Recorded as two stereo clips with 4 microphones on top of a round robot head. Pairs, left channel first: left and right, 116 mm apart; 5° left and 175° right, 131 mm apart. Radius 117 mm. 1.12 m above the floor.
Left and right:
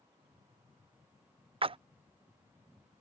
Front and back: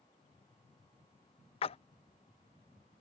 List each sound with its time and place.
1.6 s a splash: 45° right